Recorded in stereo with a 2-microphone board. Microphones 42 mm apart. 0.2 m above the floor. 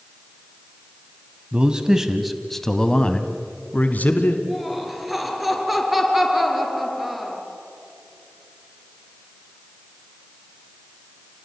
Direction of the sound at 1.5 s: 25° right (ahead or behind).